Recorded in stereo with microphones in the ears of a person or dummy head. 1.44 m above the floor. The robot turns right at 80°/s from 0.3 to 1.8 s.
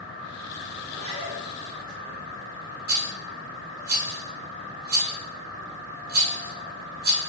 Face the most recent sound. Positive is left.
turn(degrees=-50)  # may be behind; listen again after turning